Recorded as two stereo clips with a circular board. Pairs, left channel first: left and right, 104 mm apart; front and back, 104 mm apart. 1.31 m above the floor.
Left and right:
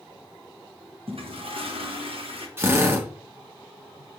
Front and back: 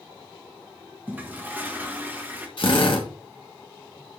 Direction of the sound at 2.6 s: 25° right.